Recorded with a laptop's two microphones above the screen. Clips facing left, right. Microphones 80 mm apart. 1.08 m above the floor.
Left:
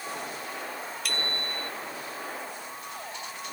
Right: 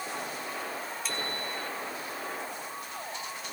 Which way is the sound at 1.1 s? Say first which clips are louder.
Left 2 dB; 75° left (ahead or behind).